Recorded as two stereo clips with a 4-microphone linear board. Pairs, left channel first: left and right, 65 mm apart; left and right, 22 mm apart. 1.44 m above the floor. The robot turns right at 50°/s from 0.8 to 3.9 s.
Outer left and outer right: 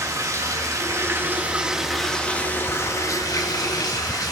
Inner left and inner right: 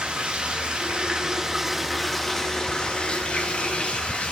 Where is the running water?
55° right, 2 m; by 4.3 s 100° left, 2 m.